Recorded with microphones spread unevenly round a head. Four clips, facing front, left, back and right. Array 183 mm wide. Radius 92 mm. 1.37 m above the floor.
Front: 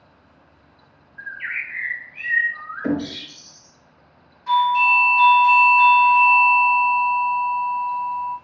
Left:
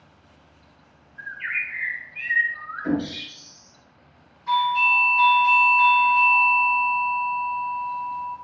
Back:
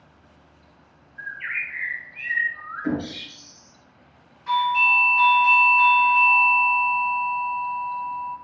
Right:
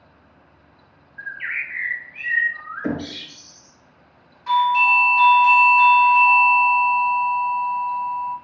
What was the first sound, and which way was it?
A bird, 70° right.